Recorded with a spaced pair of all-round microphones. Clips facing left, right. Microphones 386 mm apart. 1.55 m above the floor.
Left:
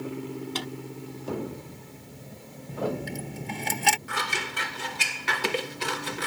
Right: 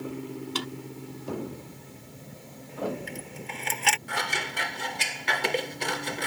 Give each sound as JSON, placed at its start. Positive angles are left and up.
{"t": 0.6, "sound": "a drawer", "side_deg": -20}
{"t": 2.7, "sound": "a dropped coin", "side_deg": 55}
{"t": 4.1, "sound": "scissors", "side_deg": 20}